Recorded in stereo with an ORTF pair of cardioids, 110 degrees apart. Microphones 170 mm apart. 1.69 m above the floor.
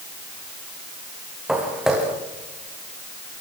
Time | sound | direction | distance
1.5 | footsteps | 5° right | 7 m